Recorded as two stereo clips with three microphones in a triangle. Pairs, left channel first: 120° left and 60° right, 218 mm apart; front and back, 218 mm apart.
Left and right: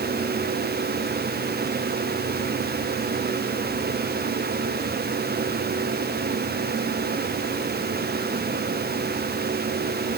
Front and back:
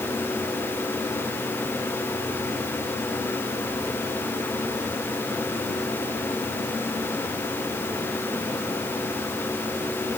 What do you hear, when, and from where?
Only background noise.